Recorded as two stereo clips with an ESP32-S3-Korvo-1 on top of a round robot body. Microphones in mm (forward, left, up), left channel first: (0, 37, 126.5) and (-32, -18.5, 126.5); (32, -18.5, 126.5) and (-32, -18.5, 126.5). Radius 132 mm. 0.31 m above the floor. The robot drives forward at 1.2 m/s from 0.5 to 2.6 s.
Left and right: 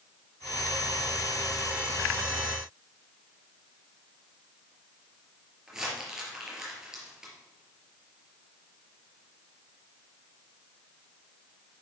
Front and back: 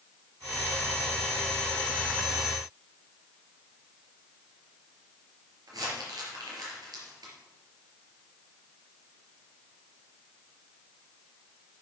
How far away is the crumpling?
About 4.5 m.